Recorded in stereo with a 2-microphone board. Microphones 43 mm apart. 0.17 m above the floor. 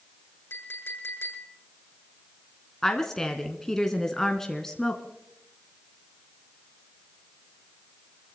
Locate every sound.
0.5 s a clink: 65° left (ahead or behind), 8 m
2.8 s a woman speaking: 10° left (ahead or behind), 1.5 m